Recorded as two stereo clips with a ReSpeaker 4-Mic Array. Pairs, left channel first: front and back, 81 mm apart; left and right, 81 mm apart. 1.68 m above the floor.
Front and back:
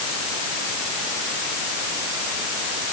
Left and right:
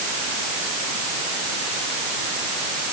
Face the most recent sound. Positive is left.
No sound to turn to.